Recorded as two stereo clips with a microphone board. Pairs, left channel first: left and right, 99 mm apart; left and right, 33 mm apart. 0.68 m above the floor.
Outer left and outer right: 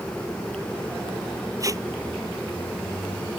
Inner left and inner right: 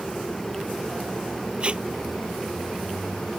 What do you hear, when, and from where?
1.6 s tape being pulled: 35° right (ahead or behind)